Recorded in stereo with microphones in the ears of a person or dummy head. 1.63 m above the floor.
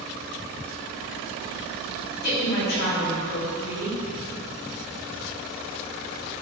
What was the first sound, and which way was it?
A woman speaking, 60° left (ahead or behind).